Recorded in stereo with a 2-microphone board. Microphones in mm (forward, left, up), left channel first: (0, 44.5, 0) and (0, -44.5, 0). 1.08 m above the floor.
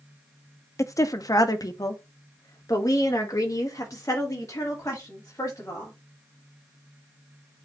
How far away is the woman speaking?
About 0.6 m.